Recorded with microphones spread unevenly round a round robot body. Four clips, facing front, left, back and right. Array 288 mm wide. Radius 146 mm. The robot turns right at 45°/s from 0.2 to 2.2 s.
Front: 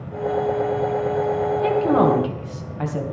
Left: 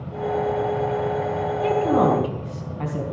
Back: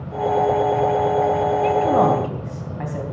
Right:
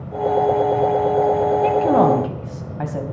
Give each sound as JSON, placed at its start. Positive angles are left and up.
{"t": 1.6, "sound": "a woman speaking", "azimuth_deg": -110, "distance_m": 2.5}